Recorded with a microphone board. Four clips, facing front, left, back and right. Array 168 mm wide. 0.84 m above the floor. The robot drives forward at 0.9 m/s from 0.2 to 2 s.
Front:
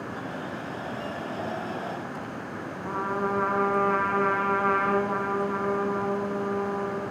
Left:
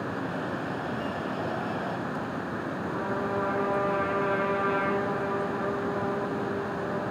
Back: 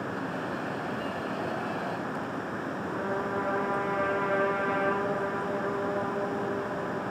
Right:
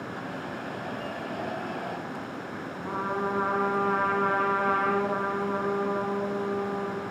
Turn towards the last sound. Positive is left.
turn(degrees=-35)